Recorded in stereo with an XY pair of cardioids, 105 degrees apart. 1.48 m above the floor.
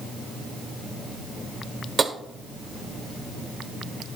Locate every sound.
2.0 s tapping: 35° right, 1.1 m